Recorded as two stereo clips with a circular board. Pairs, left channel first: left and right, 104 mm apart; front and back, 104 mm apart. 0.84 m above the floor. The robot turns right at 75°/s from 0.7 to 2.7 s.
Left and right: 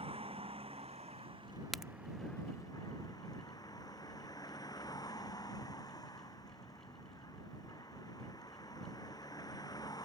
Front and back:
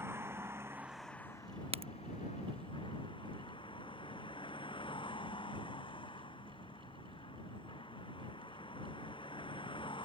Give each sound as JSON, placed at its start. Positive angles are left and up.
{"t": 0.0, "sound": "a vehicle", "azimuth_deg": -110}
{"t": 1.7, "sound": "a crack", "azimuth_deg": 180}